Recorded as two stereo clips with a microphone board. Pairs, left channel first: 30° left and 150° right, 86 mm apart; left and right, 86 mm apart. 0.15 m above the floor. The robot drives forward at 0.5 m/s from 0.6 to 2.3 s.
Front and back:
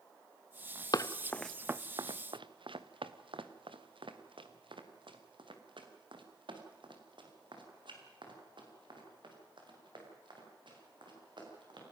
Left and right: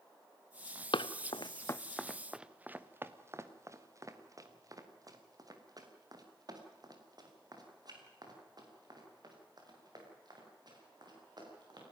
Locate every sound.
0.9 s running footsteps: 70° left, 0.9 m; by 11.8 s 125° right, 8 m